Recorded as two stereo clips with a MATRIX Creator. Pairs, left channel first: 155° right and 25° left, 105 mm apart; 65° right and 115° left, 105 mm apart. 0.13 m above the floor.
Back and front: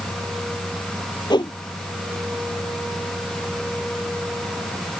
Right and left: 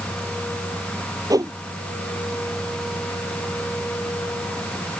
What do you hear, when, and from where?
1.3 s a whoosh: 165° left